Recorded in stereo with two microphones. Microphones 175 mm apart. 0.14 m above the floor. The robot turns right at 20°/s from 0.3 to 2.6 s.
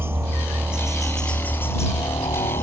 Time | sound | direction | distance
0.0 | a helicopter | 15° right | ?